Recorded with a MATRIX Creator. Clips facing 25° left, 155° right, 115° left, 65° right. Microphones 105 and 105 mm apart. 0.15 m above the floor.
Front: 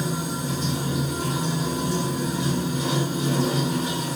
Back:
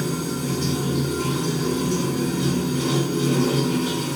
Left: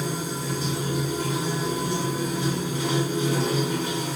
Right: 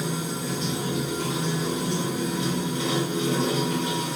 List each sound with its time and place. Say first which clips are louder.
0.0 s running water: back 2 dB, even; 165° right, 2 m